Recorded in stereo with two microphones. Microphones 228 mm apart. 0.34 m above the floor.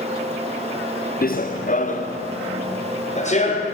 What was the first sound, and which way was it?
Running footsteps, 40° left (ahead or behind).